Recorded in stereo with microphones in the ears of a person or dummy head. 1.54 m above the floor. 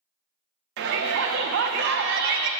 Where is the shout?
55° right (ahead or behind), 0.6 m.